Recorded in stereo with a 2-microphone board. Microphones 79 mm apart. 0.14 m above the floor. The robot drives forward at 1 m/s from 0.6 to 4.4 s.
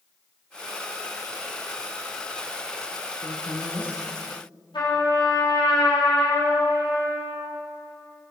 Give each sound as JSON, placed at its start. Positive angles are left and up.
{"t": 3.2, "sound": "a woman speaking", "side_deg": 20, "distance_m": 1.4}
{"t": 4.7, "sound": "a trumpet", "side_deg": 70, "distance_m": 4.5}